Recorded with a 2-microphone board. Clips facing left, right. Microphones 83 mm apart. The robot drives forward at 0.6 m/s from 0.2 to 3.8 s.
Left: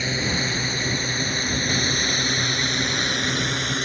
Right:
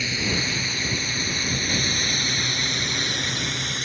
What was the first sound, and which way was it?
A drone, 35° left (ahead or behind).